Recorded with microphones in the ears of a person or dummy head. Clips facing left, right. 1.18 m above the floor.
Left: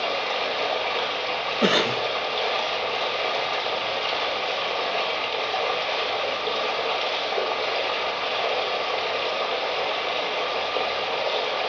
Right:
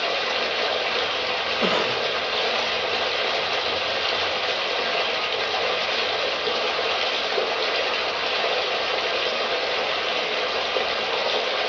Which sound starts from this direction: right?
Running water, at 0.0 s.